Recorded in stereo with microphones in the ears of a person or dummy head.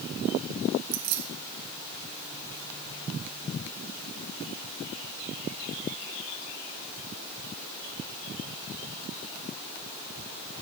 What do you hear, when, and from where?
0.9 s keys jangling: 70° right (ahead or behind), 2 m